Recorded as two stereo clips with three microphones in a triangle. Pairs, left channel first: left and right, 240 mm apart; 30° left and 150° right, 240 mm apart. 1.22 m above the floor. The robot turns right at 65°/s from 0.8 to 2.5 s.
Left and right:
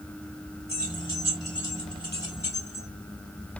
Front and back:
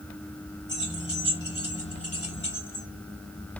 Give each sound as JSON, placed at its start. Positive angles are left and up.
{"t": 0.7, "sound": "keys jangling", "azimuth_deg": -40, "distance_m": 2.5}